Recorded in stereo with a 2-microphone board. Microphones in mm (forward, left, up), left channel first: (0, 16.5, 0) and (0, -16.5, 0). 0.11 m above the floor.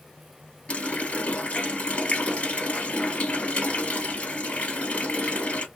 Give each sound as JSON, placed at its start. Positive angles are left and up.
{"t": 0.7, "sound": "a running tap", "side_deg": 35, "distance_m": 1.5}